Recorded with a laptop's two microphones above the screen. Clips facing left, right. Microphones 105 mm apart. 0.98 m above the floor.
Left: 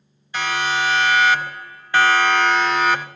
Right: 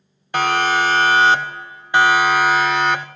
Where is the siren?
60° right (ahead or behind), 2.5 m; by 3.1 s 5° left (ahead or behind), 2.5 m.